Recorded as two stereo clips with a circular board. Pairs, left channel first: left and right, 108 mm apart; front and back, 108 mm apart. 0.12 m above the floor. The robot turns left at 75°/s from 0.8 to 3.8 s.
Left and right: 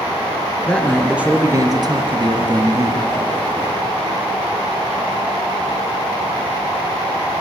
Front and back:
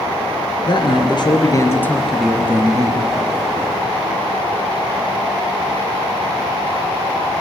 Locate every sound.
0.7 s a man speaking: 15° left, 2.5 m; by 3.0 s 155° right, 2.5 m